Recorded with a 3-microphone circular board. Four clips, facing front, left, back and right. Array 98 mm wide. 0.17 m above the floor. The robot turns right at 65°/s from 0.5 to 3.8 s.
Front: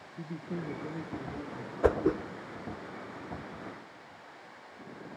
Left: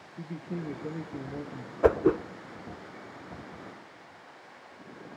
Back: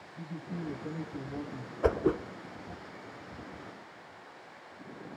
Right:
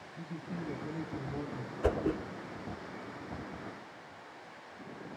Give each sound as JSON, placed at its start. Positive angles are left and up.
{"t": 0.2, "sound": "a man speaking", "azimuth_deg": 60, "distance_m": 3.0}
{"t": 1.8, "sound": "a whoosh", "azimuth_deg": 80, "distance_m": 0.5}